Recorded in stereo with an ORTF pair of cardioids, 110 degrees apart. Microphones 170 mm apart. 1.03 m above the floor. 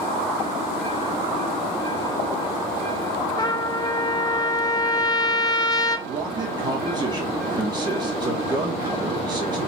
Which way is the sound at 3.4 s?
25° left.